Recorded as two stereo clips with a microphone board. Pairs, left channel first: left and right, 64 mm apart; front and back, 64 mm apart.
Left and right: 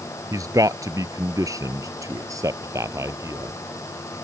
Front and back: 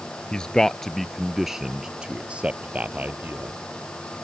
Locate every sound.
0.3 s a man speaking: 75° right; by 3.5 s 125° right